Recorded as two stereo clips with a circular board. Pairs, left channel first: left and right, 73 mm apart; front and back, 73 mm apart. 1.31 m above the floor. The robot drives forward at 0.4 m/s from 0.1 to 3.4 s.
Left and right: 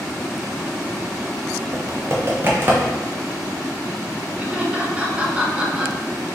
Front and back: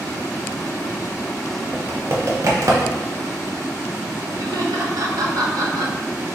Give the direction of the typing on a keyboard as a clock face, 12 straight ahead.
4 o'clock.